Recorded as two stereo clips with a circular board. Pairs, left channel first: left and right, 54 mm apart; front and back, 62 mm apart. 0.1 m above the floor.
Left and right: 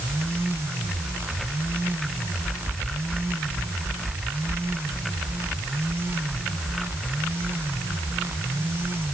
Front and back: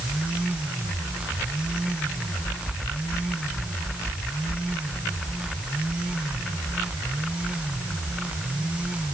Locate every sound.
Only background noise.